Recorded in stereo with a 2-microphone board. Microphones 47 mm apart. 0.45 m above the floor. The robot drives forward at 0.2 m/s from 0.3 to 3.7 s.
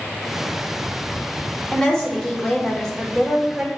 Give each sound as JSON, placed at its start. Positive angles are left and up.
{"t": 1.7, "sound": "a woman speaking", "side_deg": 15, "distance_m": 1.0}